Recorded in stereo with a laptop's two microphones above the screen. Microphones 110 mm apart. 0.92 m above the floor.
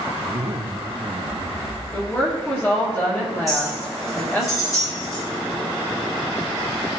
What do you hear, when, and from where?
0.2 s a zipper: 60° right (ahead or behind), 0.7 m
1.9 s a woman speaking: 20° left (ahead or behind), 2 m
3.5 s a clink: 30° left (ahead or behind), 4.5 m